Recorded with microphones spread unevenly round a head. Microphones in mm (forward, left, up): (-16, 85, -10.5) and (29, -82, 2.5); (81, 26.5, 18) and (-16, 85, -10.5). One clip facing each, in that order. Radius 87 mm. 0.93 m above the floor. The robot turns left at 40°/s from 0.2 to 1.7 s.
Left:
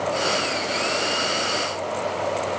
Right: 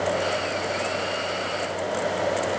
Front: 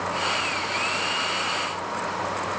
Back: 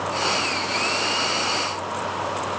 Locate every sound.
Only background noise.